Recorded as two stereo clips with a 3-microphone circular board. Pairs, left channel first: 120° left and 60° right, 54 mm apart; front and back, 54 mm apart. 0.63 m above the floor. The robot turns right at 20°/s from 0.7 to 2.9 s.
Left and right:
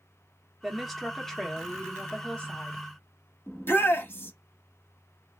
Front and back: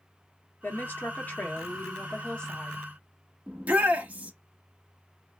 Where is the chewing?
I don't hear chewing.